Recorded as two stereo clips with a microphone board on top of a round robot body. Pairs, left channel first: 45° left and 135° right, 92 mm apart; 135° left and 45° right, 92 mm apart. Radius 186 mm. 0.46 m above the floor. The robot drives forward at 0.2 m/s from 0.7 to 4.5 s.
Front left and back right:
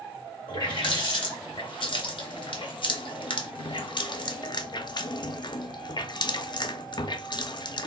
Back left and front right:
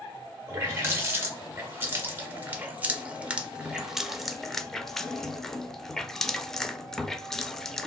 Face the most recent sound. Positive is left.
turn(degrees=50)